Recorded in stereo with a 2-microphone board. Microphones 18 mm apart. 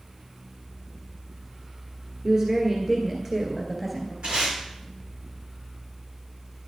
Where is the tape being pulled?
80° right, 8 m.